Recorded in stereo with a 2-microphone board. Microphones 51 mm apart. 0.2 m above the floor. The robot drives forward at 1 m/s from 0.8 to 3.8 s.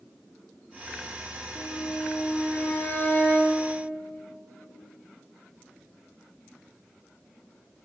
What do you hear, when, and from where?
1.6 s a violin: 45° left (ahead or behind), 8 m; by 3.6 s 35° left (ahead or behind), 9.5 m